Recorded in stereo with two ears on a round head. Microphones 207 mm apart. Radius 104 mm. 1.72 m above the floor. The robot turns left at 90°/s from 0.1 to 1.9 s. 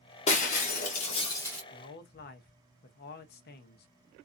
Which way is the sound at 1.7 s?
35° left (ahead or behind).